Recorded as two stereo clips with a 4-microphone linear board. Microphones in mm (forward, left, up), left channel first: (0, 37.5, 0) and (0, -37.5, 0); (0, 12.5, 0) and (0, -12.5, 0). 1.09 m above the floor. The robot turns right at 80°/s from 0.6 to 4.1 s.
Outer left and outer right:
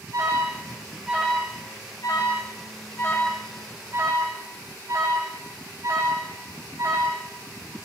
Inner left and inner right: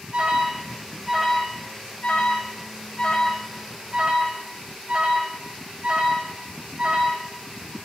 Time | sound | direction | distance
0.1 | an alarm | 50° right (ahead or behind) | 5.5 m